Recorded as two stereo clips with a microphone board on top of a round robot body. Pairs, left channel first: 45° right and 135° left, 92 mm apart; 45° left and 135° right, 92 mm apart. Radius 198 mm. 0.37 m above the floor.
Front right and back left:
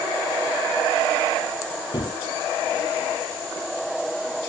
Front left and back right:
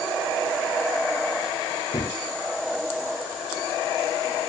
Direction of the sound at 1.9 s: 5° right.